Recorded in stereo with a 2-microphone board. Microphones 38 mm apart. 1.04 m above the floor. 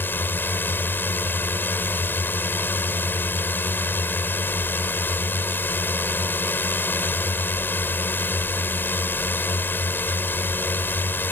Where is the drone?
55° left (ahead or behind).